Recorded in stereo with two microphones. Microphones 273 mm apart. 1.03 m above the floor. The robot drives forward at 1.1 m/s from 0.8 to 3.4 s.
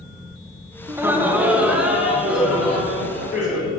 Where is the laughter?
10° right (ahead or behind), 0.8 m; by 3.7 s centre (ahead or behind), 3.5 m.